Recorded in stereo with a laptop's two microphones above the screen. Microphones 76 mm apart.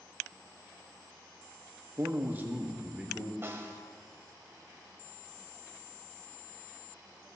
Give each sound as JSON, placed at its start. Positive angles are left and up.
{"t": 2.0, "sound": "a man speaking", "side_deg": -40, "distance_m": 1.0}
{"t": 3.4, "sound": "a snare drum", "side_deg": -30, "distance_m": 1.2}